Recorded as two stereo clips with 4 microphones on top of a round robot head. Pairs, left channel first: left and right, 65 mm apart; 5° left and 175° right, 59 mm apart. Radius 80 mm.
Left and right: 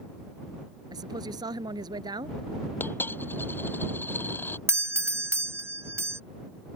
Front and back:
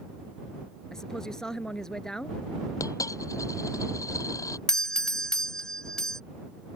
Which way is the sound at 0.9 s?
75° right.